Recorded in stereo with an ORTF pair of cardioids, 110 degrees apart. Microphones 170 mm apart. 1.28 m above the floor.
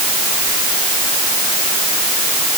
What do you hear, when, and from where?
Only background noise.